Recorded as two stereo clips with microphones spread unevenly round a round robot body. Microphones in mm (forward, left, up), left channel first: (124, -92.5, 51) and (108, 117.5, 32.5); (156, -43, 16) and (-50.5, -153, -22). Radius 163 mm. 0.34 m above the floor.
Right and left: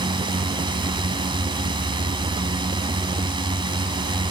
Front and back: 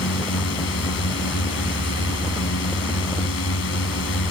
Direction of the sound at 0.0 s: 30° left.